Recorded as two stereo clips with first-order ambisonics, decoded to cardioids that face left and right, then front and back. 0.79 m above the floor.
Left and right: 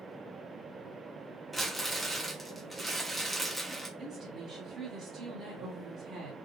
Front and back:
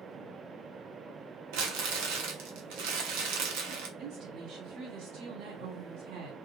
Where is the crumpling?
Straight behind, 0.8 m.